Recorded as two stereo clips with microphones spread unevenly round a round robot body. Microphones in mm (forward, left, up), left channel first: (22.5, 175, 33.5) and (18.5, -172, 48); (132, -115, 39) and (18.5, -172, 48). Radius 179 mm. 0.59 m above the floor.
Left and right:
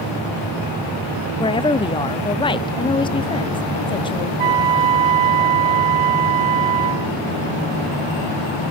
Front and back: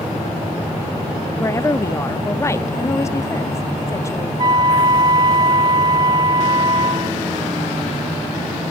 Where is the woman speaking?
35° left, 0.6 m.